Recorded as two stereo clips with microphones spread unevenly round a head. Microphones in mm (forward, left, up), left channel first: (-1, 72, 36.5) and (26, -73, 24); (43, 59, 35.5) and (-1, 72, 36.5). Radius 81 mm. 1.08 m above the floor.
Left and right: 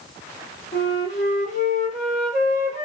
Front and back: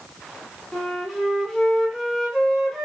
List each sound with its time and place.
0.7 s a flute: 70° left, 0.9 m